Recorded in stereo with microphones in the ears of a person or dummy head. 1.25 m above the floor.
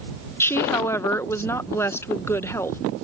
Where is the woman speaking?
10° left (ahead or behind).